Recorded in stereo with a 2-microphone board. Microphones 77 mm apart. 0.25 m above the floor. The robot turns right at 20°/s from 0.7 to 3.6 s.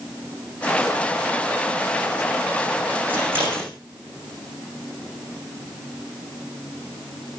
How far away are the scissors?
About 9.5 m.